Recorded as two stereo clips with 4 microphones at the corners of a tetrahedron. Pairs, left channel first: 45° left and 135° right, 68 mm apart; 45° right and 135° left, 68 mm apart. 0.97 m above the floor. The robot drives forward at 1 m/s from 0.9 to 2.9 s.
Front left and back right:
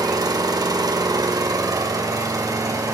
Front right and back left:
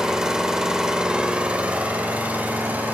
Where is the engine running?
145° right, 2 m; by 3.0 s 160° right, 4 m.